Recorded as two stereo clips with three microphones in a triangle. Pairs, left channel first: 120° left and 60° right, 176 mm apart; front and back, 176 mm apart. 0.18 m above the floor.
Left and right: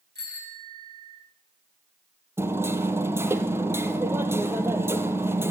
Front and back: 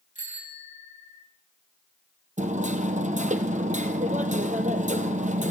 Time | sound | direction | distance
0.1 | a bicycle bell | 45° right | 10 m
2.4 | hammering | 135° right | 2.0 m